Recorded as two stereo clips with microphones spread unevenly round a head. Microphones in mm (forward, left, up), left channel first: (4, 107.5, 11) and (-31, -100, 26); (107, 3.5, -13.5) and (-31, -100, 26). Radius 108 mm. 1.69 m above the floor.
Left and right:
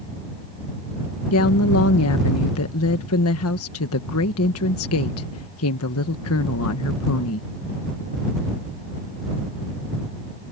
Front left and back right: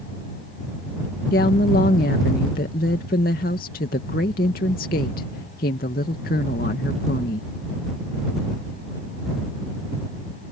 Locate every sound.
1.3 s a woman speaking: 90° left